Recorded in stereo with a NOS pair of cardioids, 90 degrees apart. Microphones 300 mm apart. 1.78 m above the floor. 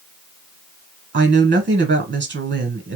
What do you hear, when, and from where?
1.1 s a woman speaking: 35° right, 1.7 m